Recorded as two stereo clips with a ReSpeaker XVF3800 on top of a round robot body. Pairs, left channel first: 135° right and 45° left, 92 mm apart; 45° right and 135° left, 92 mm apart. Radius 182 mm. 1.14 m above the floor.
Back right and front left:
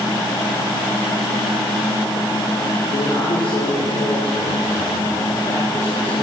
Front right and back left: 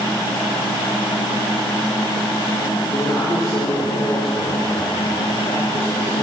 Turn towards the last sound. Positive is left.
turn(degrees=-85)